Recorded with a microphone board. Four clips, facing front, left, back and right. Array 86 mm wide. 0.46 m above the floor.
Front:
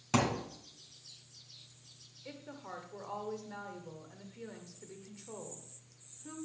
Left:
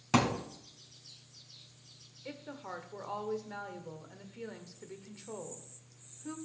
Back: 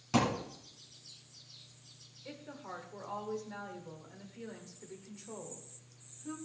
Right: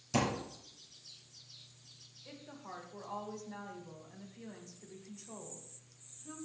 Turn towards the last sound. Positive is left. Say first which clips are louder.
# left 5 dB, back 1 dB
turn(degrees=90)